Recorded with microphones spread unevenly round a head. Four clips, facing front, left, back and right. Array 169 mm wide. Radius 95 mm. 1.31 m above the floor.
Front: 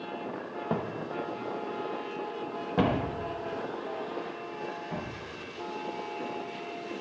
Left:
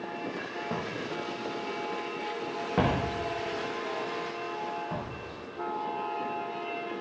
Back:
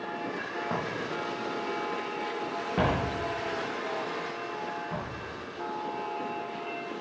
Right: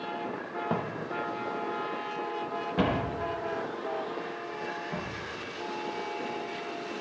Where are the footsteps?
25° right, 1.8 m; by 5.2 s 65° left, 4 m.